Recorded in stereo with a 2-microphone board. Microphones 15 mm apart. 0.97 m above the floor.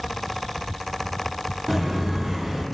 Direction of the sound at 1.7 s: 20° right (ahead or behind).